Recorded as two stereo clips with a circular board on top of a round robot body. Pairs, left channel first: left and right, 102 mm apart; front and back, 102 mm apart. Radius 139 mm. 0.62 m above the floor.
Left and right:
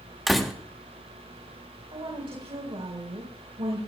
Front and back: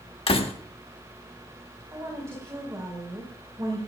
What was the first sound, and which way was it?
A door slam, straight ahead.